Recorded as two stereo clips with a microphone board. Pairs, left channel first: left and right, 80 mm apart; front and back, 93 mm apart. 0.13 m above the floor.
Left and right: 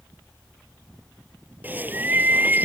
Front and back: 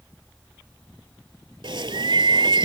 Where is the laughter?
No laughter in this recording.